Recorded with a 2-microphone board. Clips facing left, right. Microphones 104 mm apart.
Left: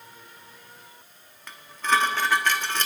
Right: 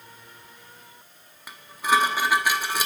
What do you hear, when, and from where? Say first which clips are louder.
1.5 s dishes clattering: right 2 dB; 10° right (ahead or behind), 1.2 m